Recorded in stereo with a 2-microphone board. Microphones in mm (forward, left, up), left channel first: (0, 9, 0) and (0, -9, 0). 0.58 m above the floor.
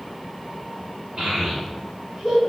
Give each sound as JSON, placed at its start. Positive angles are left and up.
{"t": 1.2, "sound": "a child speaking", "side_deg": -40, "distance_m": 1.4}